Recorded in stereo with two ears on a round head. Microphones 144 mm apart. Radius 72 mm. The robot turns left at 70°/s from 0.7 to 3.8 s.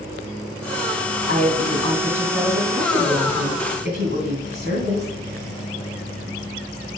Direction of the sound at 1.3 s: 80° left.